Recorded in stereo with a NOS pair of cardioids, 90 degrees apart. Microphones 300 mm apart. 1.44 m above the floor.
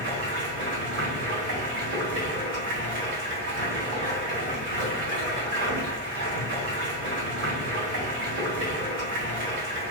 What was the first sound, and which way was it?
Running water, 60° right.